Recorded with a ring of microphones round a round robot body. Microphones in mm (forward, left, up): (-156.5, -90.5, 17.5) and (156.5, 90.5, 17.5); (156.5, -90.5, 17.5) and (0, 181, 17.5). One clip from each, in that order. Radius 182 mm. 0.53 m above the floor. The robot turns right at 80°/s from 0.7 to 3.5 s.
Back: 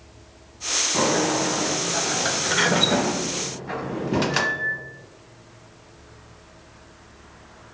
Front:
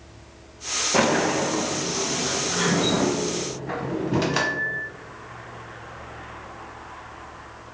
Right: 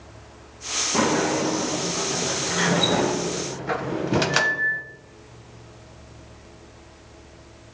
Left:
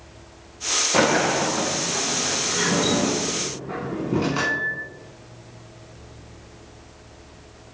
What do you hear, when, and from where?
0.9 s a sliding door: 90° left, 0.7 m; by 4.8 s 65° right, 0.7 m